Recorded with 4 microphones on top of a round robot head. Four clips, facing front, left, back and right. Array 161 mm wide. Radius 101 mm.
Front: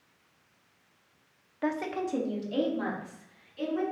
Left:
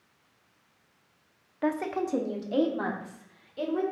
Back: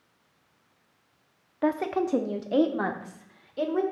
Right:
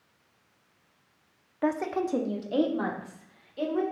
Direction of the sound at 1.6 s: 155° right.